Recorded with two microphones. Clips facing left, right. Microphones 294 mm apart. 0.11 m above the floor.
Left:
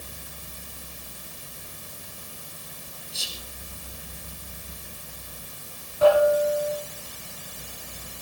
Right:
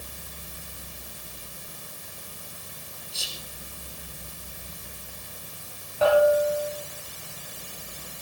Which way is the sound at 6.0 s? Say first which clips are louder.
Left 1 dB; 70° right (ahead or behind).